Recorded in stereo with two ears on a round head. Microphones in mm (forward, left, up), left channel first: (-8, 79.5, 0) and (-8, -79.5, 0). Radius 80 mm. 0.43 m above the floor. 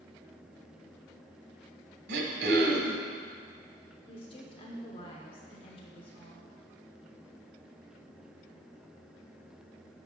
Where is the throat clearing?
65° right (ahead or behind), 1.1 m.